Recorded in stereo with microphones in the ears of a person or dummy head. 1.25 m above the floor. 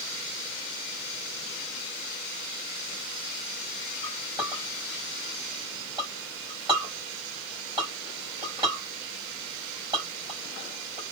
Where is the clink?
30° right (ahead or behind), 3.5 m.